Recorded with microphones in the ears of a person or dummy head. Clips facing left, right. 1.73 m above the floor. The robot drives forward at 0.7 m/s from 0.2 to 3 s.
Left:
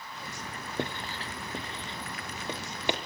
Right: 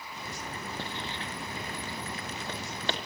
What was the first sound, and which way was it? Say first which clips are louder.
Writing: left 3 dB; 50° left (ahead or behind).